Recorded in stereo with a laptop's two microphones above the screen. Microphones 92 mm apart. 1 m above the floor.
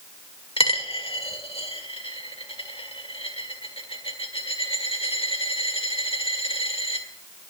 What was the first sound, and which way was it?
A dropped coin, 80° left.